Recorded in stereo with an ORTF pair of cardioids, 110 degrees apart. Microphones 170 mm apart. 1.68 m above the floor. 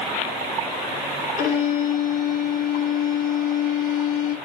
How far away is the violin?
About 3.5 m.